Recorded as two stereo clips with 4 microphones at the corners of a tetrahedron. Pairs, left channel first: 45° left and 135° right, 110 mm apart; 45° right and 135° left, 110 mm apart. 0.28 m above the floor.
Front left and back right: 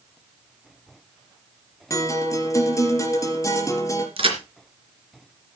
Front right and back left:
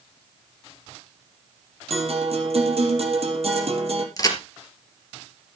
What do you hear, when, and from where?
1.9 s a guitar: 105° left, 4 m
4.2 s a crack: 105° right, 3 m